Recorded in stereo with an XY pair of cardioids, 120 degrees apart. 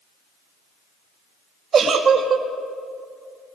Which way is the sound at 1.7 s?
40° right.